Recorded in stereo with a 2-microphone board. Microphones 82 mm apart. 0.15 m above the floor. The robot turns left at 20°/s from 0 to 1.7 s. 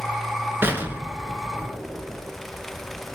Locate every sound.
0.6 s an explosion: 25° right (ahead or behind), 1.0 m; by 2.4 s 10° right (ahead or behind), 1.0 m